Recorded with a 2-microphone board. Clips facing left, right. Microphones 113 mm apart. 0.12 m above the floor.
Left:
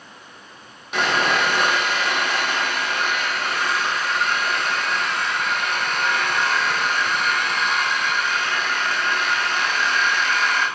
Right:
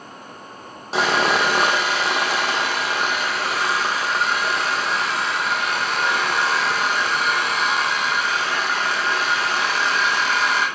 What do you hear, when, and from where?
0.9 s sawing: 30° right (ahead or behind), 2 m